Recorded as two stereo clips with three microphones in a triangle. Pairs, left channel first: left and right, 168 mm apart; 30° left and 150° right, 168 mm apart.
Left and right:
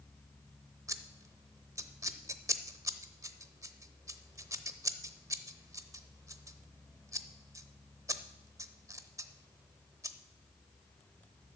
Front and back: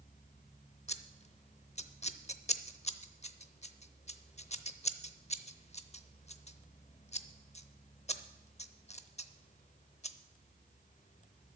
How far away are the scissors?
About 0.7 m.